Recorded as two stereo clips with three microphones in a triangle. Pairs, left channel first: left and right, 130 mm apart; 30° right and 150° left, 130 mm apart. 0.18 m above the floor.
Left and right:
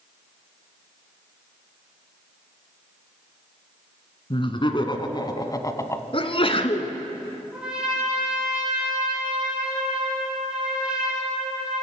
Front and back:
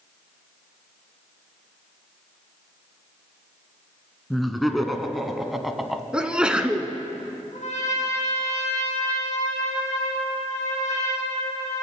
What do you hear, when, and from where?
4.3 s laughter: 60° left, 1.8 m; by 6.0 s 65° left, 1.2 m
6.1 s a sneeze: 70° left, 1.6 m
7.5 s a trumpet: 5° right, 8 m